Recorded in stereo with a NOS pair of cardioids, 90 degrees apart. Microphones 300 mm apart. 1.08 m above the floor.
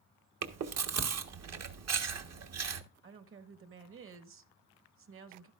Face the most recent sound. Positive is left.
turn(degrees=-40)